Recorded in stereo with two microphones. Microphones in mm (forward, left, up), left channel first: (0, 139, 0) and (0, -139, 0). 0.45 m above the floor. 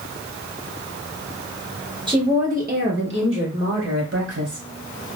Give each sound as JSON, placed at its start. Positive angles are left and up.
{"t": 2.1, "sound": "a woman speaking", "side_deg": -15, "distance_m": 1.0}